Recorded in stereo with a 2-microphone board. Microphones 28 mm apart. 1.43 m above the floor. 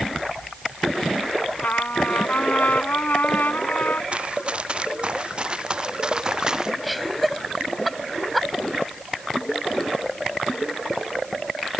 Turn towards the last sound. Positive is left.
turn(degrees=-5)  # may be behind; listen again after turning